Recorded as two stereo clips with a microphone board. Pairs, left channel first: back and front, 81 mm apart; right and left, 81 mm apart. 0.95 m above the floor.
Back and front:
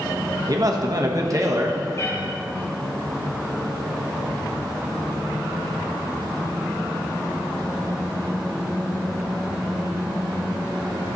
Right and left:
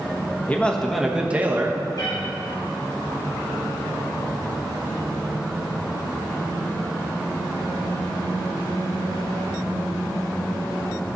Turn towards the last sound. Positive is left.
turn(degrees=-125)